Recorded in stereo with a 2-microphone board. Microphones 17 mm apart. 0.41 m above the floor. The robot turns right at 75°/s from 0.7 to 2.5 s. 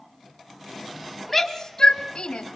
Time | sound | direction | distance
1.3 | a shout | 5° right (ahead or behind) | 2.5 m